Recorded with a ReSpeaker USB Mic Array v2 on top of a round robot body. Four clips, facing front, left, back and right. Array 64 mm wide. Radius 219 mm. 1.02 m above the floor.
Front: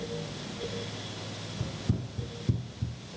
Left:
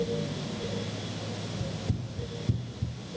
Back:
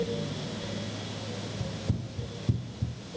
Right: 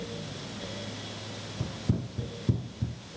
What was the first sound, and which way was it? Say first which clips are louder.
Running footsteps: right 2 dB, front 4 dB; 65° right.